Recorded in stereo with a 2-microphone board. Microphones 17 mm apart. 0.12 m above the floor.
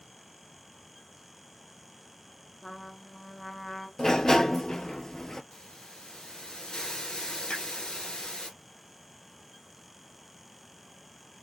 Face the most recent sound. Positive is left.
turn(degrees=65)  # may be behind; listen again after turning